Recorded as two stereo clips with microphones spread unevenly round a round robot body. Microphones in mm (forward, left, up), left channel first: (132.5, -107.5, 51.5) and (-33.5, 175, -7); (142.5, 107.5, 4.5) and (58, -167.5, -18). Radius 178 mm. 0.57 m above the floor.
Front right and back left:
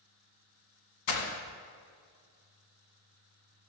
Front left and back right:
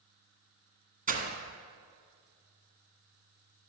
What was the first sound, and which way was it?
Breaking glass, 45° right.